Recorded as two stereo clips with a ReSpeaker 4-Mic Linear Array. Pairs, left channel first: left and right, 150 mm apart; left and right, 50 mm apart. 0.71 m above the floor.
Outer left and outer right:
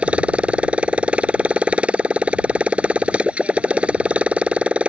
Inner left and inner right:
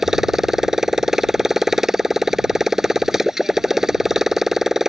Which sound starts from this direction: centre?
A motorcycle, at 0.0 s.